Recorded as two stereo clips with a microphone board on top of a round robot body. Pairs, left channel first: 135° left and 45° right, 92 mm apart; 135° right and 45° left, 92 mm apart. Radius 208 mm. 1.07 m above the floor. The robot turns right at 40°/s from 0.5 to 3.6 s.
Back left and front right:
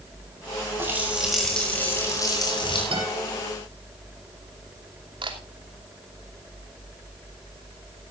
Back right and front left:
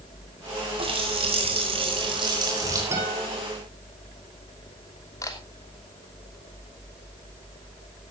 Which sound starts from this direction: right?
A camera shutter, at 5.2 s.